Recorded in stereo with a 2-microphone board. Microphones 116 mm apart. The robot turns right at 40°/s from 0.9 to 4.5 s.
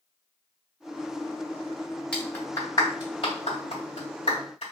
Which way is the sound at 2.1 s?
10° left (ahead or behind).